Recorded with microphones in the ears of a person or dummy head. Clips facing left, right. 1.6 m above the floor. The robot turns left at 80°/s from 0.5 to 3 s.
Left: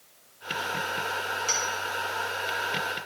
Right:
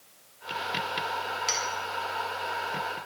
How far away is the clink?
About 1.6 m.